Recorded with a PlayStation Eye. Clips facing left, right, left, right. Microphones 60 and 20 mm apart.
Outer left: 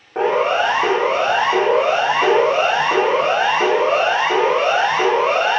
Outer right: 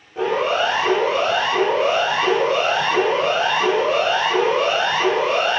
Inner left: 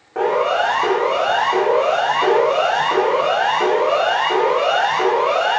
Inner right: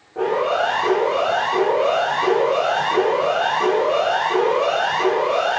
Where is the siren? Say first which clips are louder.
Outer left 3 dB, inner left 2 dB; 65° left (ahead or behind), 7.5 m; by 5.6 s 75° left (ahead or behind), 9.5 m.